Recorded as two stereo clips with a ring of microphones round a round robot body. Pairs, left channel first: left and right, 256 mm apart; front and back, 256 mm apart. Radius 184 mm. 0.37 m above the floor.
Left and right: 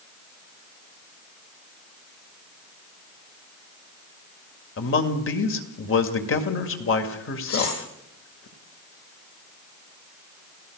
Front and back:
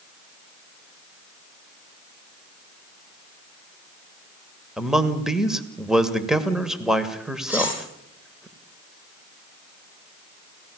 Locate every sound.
4.8 s a man speaking: 95° left, 2 m
7.5 s cutlery clinking: 95° left, 10 m